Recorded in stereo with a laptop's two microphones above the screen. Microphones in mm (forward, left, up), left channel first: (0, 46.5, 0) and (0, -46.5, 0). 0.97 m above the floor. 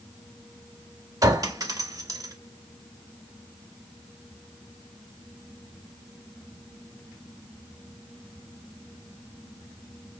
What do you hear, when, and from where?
1.2 s a clink: 40° right (ahead or behind), 0.9 m